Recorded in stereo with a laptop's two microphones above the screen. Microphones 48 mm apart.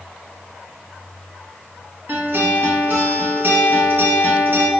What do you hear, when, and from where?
2.1 s a guitar: 50° right (ahead or behind), 0.6 m